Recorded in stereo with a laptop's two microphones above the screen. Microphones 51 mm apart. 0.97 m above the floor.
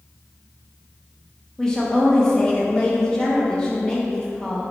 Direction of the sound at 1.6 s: 10° left (ahead or behind).